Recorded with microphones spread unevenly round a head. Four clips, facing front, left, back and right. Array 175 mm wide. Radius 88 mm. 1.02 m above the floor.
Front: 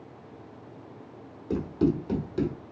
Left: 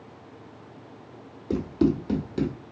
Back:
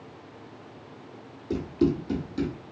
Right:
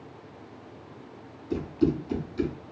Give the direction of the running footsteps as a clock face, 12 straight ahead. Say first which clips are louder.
Left 2 dB, back 1 dB; 9 o'clock.